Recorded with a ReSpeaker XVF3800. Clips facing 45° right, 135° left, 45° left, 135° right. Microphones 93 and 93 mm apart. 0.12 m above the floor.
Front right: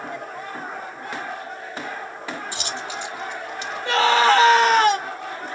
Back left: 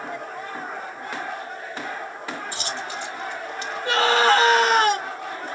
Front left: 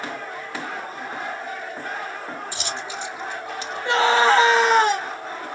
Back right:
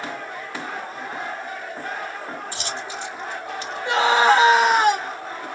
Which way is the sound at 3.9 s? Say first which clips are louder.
Front right 2 dB, even; 165° left.